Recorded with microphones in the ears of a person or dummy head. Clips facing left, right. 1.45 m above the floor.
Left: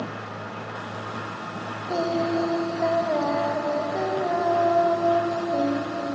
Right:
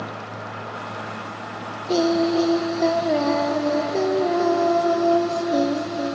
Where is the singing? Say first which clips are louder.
Right 6 dB; 40° right (ahead or behind), 0.9 m.